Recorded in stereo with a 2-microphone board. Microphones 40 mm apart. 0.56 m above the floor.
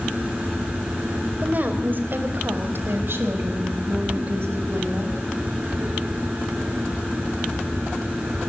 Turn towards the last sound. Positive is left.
turn(degrees=-75)  # may be behind; listen again after turning